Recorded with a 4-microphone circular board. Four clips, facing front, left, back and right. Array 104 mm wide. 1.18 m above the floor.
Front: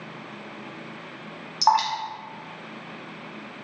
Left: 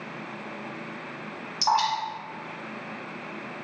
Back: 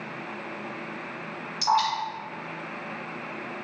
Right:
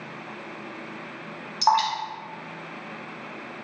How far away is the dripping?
About 1.0 m.